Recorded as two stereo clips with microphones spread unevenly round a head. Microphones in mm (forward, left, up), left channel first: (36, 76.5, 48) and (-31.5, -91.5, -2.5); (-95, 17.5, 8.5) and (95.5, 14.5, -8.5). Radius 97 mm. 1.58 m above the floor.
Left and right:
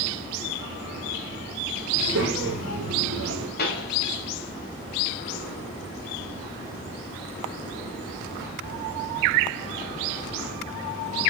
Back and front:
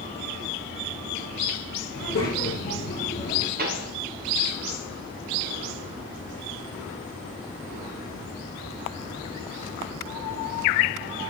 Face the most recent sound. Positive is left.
turn(degrees=40)